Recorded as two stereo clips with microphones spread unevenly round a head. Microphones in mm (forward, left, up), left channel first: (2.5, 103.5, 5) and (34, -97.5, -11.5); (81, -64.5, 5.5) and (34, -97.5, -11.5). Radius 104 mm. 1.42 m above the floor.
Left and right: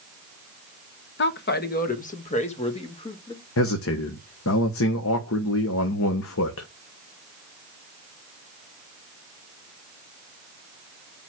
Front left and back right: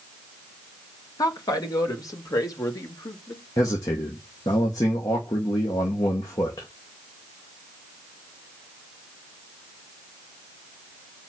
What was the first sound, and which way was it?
A woman speaking, 65° left.